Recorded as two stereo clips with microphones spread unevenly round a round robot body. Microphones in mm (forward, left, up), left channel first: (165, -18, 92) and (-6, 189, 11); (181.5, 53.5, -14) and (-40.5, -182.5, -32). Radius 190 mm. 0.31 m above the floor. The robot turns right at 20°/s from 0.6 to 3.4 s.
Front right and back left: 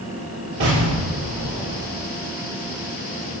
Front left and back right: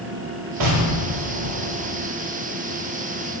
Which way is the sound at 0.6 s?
175° right.